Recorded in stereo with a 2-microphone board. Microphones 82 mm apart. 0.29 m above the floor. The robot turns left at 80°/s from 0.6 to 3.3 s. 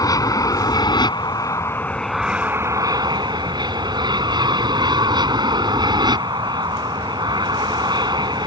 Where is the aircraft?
125° left; by 8.5 s 90° right.